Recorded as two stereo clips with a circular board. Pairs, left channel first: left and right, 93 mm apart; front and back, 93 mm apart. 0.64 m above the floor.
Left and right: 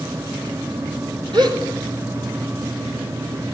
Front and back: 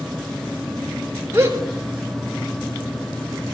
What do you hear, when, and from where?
1.3 s a gasp: 120° right, 4.5 m